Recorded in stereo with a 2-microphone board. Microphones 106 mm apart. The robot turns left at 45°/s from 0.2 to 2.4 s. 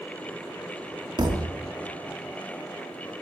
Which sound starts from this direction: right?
A thud, at 1.2 s.